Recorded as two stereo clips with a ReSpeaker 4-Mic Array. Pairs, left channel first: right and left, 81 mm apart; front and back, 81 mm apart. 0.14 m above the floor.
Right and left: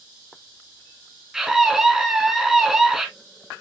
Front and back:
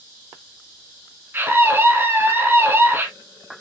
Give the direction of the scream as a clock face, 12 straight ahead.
6 o'clock.